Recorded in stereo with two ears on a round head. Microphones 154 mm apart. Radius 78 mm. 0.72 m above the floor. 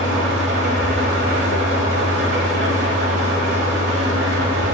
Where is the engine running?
75° right (ahead or behind), 1.1 m.